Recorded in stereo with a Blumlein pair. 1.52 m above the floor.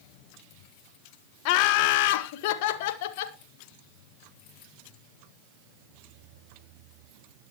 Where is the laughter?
45° left, 1.3 m; by 3.4 s 50° left, 2.5 m.